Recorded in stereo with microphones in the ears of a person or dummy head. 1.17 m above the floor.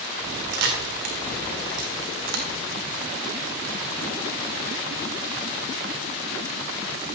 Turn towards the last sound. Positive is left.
turn(degrees=-70)  # may be behind; listen again after turning